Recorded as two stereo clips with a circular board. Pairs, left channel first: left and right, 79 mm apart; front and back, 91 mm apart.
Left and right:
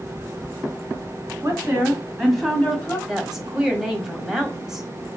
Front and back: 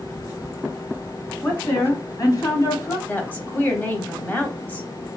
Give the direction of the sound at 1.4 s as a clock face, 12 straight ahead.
2 o'clock.